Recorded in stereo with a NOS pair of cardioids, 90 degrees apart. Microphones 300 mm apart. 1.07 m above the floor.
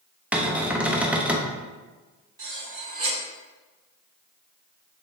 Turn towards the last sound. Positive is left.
turn(degrees=-50)